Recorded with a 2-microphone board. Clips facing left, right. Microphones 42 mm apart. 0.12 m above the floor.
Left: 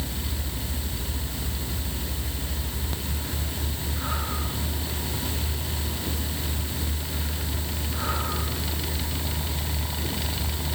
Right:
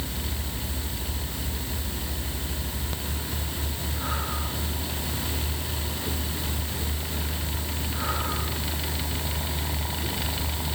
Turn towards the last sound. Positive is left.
No sound to turn to.